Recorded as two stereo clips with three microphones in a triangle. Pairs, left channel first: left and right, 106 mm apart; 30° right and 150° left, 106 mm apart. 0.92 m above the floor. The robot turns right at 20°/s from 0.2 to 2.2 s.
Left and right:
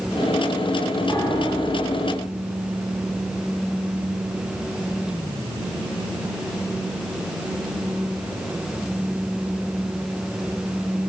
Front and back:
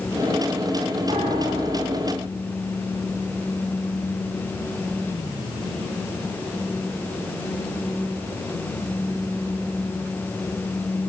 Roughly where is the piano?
Behind left.